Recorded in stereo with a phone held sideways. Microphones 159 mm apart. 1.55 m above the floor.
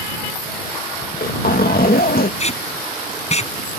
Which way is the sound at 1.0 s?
75° left (ahead or behind).